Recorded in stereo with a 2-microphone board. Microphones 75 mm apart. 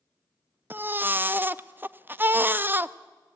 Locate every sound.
0.7 s a baby crying: 25° right (ahead or behind), 0.5 m